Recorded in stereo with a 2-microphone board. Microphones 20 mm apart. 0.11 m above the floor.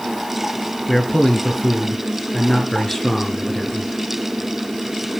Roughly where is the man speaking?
Left.